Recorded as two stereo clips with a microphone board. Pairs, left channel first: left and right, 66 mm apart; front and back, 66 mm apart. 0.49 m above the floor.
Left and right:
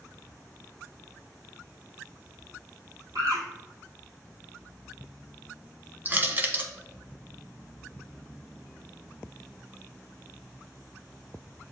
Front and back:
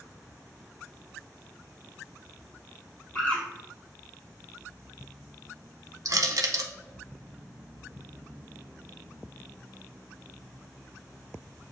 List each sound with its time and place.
3.1 s a bird: 60° right, 2 m
6.0 s crushing: 150° right, 0.8 m